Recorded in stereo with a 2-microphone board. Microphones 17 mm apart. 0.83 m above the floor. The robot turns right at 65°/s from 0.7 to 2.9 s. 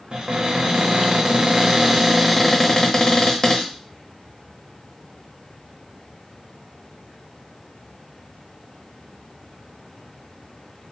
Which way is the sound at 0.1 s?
105° right.